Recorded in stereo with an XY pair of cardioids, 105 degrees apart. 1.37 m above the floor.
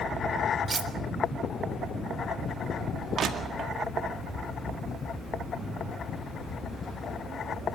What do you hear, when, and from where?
0.7 s cutlery clinking: 30° right, 1.5 m
3.2 s crushing: 55° right, 2.0 m